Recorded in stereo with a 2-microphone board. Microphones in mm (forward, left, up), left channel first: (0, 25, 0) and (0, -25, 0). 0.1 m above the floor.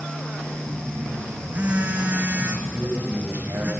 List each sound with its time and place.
0.7 s a phone buzzing: 25° right (ahead or behind), 3 m
2.7 s a man speaking: 50° right (ahead or behind), 8 m